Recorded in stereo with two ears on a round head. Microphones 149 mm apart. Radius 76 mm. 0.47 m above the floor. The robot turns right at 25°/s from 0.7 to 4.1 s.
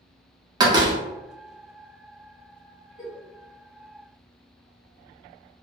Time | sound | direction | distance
0.6 | a door slam | 25° right (ahead or behind) | 0.6 m
3.0 | a giggle | 25° left (ahead or behind) | 1.1 m